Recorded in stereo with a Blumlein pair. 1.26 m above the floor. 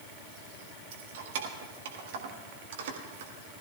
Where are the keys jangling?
55° right, 1.6 m.